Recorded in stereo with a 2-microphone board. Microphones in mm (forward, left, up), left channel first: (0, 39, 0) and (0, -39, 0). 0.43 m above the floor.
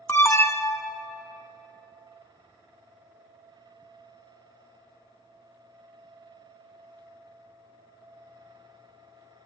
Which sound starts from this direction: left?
An alarm, at 0.1 s.